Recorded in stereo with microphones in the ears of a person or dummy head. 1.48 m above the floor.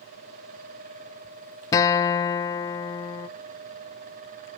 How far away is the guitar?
About 0.8 m.